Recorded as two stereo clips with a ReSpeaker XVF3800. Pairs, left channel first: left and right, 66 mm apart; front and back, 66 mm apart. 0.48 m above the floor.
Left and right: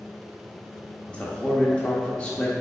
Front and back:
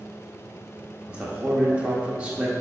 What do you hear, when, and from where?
1.1 s a man speaking: 135° left, 1.0 m